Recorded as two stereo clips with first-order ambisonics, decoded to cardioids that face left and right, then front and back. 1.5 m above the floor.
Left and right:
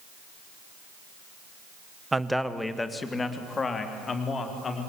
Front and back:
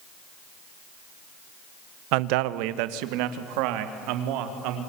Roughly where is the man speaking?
Behind.